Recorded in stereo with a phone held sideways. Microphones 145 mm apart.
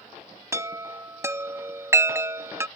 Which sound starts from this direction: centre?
A chime, at 0.5 s.